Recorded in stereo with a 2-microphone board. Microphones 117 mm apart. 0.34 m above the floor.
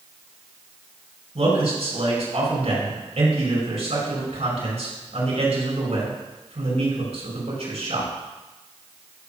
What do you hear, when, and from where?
1.4 s a man speaking: 70° right (ahead or behind), 4.5 m